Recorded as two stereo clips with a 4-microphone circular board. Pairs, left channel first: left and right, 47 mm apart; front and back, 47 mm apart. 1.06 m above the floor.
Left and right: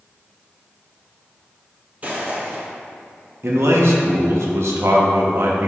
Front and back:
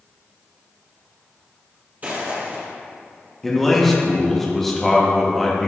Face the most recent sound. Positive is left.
turn(degrees=-85)